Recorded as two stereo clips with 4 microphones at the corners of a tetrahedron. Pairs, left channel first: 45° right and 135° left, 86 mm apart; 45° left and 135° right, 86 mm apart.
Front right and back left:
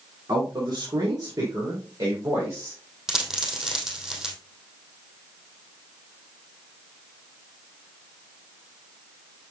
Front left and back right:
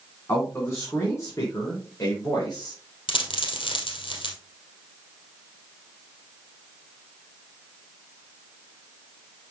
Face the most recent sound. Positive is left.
turn(degrees=50)